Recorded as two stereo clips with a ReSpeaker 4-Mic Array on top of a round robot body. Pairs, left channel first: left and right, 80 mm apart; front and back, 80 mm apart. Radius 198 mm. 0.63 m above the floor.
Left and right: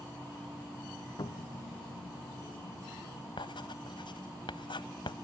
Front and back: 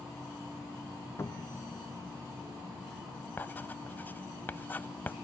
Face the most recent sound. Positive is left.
turn(degrees=65)